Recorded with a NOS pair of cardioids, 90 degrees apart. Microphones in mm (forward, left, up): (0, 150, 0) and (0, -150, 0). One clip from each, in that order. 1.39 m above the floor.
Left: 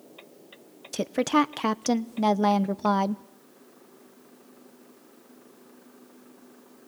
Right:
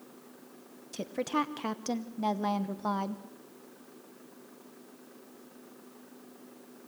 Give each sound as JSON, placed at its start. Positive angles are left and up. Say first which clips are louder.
{"t": 0.9, "sound": "a woman speaking", "louder": "left 8 dB", "azimuth_deg": 45, "distance_m": 0.9}